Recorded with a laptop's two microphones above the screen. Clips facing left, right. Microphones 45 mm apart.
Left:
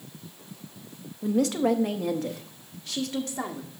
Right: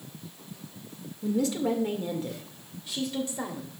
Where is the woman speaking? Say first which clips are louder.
Left 3 dB; 50° left (ahead or behind), 0.8 m; by 3.7 s 55° left (ahead or behind), 1.9 m.